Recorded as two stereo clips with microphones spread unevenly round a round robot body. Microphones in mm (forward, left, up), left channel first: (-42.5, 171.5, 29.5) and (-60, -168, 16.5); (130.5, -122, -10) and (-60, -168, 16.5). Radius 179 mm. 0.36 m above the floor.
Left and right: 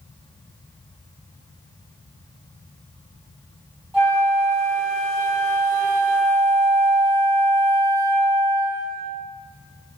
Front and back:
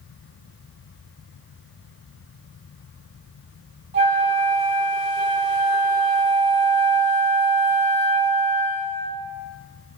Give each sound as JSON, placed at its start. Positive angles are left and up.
{"t": 3.9, "sound": "a flute", "azimuth_deg": -170, "distance_m": 1.3}